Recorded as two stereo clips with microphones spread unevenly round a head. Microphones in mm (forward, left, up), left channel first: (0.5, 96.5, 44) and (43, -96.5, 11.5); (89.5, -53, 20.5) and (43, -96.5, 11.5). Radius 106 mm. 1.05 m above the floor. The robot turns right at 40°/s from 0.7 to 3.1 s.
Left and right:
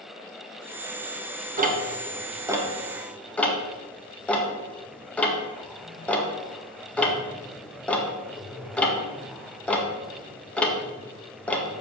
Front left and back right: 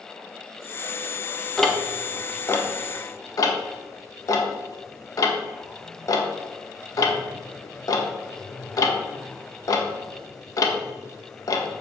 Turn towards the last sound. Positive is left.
turn(degrees=15)